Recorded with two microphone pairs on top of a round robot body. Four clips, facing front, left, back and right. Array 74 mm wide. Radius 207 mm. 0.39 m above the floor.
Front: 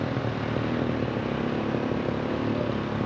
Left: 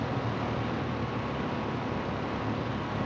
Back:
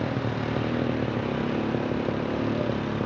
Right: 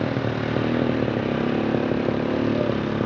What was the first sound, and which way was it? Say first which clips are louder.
A motorcycle: right 7 dB, back 1 dB; 90° right.